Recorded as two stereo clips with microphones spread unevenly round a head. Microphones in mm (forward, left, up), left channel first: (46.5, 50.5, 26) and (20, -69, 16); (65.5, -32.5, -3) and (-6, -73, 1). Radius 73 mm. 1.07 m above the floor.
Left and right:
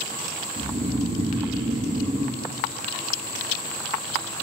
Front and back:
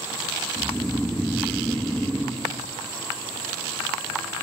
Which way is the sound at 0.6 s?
55° right.